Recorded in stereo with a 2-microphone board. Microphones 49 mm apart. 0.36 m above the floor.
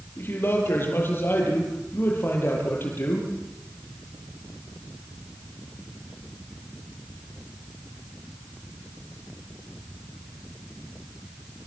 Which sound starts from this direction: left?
A man speaking, at 0.2 s.